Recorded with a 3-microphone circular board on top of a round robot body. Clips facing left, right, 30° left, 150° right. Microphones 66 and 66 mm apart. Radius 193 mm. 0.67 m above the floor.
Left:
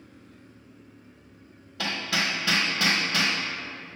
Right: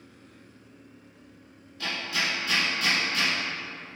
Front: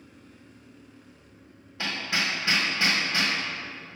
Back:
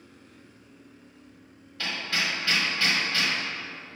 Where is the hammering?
100° left, 1.2 m.